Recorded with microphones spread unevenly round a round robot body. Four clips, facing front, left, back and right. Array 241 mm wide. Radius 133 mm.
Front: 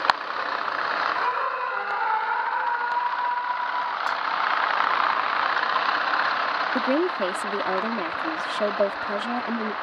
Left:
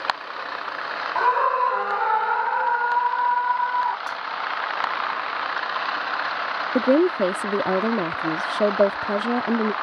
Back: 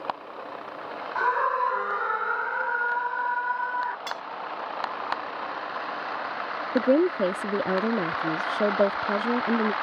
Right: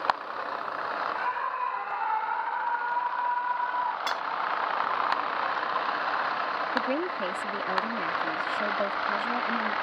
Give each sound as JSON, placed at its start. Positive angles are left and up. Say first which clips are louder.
{"t": 1.1, "sound": "a scream", "louder": "left 10 dB, back 1 dB", "azimuth_deg": 120}
{"t": 4.1, "sound": "cutlery clinking", "louder": "even, front 8 dB", "azimuth_deg": -115}
{"t": 6.8, "sound": "a woman speaking", "louder": "left 15 dB, back 5 dB", "azimuth_deg": 110}